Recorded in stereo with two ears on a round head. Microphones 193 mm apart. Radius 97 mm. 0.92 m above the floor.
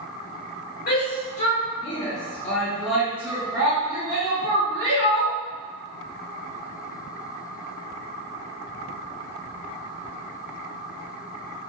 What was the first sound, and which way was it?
A shout, 45° left (ahead or behind).